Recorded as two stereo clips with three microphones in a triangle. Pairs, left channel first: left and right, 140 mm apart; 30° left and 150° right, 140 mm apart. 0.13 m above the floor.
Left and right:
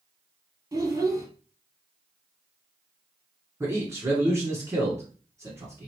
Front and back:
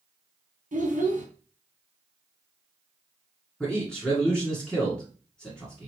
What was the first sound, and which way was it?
A child speaking, 155° right.